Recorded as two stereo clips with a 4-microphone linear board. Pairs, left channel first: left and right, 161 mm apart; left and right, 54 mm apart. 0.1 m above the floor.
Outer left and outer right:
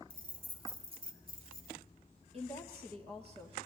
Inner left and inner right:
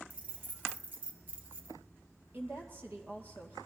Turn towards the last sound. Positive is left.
turn(degrees=-40)  # may be behind; listen again after turning